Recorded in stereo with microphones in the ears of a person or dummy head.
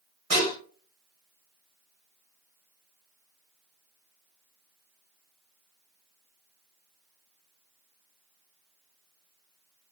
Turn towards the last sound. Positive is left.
turn(degrees=-50)  # may be behind; listen again after turning